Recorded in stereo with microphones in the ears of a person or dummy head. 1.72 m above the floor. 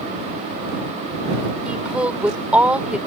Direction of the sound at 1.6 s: 5° right (ahead or behind).